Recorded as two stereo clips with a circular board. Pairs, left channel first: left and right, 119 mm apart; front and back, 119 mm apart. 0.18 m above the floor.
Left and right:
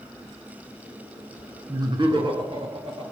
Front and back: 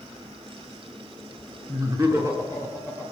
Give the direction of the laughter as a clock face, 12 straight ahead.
4 o'clock.